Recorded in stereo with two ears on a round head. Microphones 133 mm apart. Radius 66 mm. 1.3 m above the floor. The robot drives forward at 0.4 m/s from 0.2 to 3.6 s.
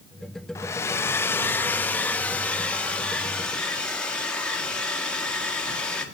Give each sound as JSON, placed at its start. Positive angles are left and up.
{"t": 0.6, "sound": "a hair dryer", "side_deg": 20, "distance_m": 0.5}